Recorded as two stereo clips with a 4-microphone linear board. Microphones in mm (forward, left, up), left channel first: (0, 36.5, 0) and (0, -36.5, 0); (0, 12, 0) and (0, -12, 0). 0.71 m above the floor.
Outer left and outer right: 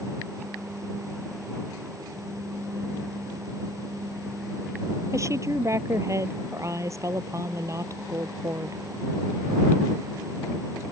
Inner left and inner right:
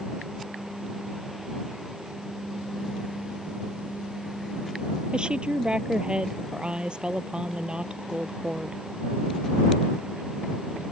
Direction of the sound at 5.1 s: 45° right (ahead or behind).